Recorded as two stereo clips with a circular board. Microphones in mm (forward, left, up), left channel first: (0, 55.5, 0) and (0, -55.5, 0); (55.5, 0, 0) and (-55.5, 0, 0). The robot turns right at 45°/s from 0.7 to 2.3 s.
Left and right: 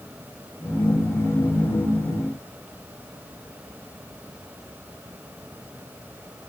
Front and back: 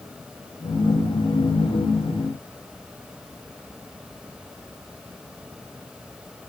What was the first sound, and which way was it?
Only background noise.